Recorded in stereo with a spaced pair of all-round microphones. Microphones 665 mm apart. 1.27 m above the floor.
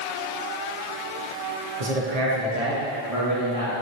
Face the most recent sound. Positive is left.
turn(degrees=-55)  # may be behind; listen again after turning